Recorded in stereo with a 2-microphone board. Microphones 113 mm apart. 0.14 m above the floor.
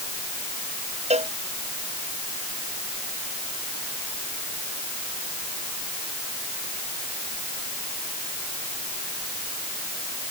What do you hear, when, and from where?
1.1 s a cowbell: 80° right